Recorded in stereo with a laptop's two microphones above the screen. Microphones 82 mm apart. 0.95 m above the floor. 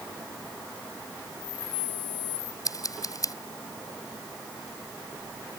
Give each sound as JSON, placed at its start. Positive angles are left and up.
{"t": 2.6, "sound": "scissors", "side_deg": 45}